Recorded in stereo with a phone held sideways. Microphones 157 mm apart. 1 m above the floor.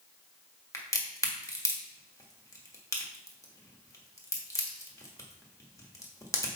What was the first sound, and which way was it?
A crack, 20° left (ahead or behind).